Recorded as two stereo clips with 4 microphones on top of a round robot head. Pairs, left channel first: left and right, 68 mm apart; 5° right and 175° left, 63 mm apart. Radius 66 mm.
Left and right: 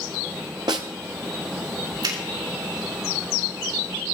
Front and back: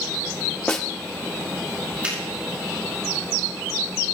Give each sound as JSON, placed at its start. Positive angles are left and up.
{"t": 0.7, "sound": "a snare drum", "azimuth_deg": -80, "distance_m": 0.5}
{"t": 2.0, "sound": "a finger snap", "azimuth_deg": -110, "distance_m": 5.5}